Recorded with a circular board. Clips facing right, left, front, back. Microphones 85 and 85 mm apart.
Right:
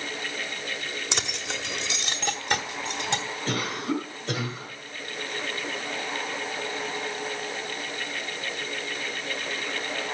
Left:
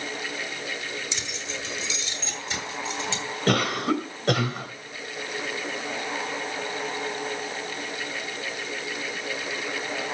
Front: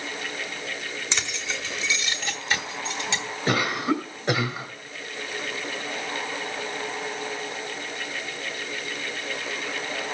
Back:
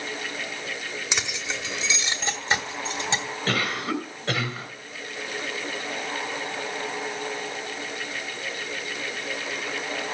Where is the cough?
70° left, 2.5 m.